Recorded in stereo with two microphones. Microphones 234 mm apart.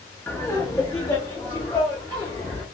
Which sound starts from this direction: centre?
Laughter, at 0.3 s.